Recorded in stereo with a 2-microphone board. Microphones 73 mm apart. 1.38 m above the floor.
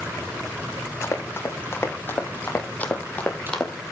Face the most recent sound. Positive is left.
turn(degrees=10)  # may be behind; listen again after turning